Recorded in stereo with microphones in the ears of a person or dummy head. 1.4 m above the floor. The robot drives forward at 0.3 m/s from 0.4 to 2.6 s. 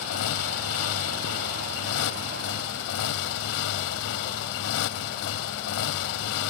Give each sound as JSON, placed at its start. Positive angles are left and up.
{"t": 0.0, "sound": "a motorcycle", "side_deg": 75}